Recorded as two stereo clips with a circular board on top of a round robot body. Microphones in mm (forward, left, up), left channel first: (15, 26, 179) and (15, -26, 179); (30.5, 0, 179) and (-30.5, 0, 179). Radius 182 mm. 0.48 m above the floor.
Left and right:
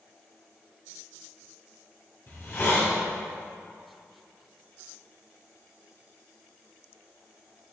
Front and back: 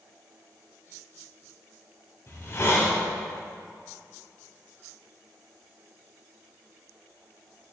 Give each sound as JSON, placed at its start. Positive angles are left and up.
{"t": 2.3, "sound": "a hiss", "azimuth_deg": 45, "distance_m": 1.7}